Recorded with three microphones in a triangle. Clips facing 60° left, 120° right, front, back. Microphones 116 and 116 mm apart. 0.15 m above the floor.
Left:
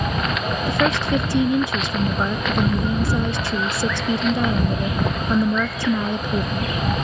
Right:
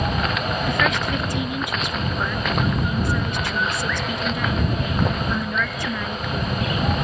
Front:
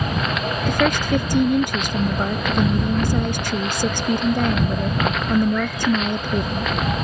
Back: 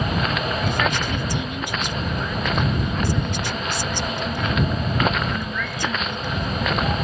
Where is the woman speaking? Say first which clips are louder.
Left 5 dB, front 9 dB; 10° left.